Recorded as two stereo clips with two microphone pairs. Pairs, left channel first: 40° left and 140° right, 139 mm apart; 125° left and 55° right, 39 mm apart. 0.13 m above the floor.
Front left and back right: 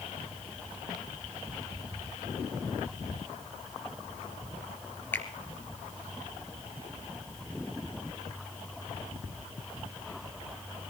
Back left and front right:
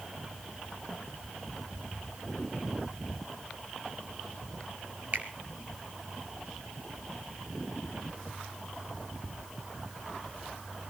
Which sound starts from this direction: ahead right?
A finger snap, at 5.1 s.